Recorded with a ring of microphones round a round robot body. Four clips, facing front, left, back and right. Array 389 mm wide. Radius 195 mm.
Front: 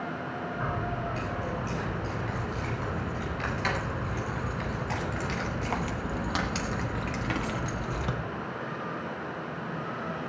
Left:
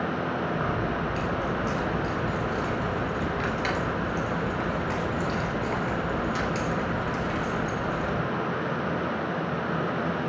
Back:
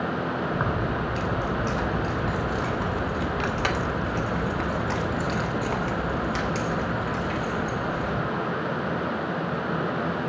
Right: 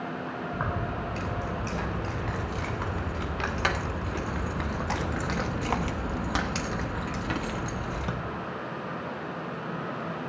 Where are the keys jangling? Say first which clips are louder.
Left 4 dB, back 6 dB; 160° right, 3 m; by 8.1 s 40° right, 1.7 m.